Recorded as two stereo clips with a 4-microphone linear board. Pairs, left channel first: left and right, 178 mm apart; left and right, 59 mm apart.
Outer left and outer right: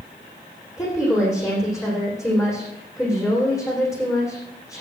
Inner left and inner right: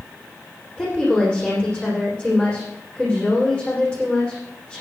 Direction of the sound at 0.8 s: 15° left (ahead or behind).